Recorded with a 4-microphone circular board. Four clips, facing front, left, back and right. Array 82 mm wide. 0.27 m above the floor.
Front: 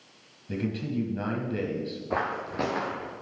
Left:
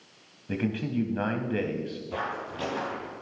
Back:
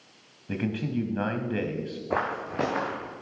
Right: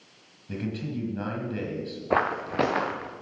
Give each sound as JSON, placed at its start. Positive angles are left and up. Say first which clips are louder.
{"t": 0.5, "sound": "a man speaking", "louder": "left 3 dB, back 1 dB", "azimuth_deg": 140, "distance_m": 1.4}
{"t": 2.1, "sound": "footsteps", "louder": "right 10 dB, back 1 dB", "azimuth_deg": -100, "distance_m": 1.4}